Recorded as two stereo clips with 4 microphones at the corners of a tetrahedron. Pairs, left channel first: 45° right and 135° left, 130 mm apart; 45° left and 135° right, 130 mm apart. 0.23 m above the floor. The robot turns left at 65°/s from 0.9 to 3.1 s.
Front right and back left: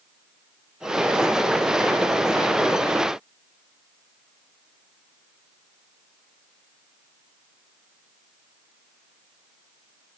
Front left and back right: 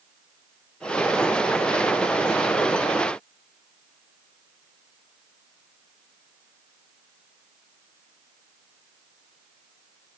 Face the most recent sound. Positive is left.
No sound to turn to.